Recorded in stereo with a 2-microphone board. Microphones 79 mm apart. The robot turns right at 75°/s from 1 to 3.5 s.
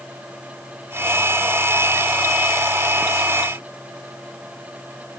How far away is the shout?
No shout in this recording.